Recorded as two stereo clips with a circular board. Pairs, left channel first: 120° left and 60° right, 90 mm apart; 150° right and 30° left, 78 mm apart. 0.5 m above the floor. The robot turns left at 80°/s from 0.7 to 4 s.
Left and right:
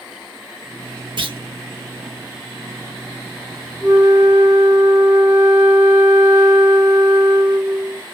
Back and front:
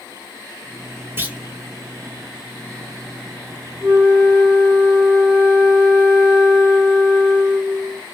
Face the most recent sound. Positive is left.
turn(degrees=-10)